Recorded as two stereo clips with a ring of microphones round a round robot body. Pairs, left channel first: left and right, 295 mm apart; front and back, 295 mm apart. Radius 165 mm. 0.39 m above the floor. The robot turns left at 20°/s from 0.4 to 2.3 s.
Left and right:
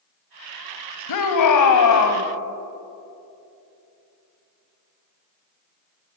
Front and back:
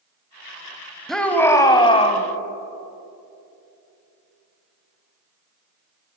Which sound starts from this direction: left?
A shout, at 1.1 s.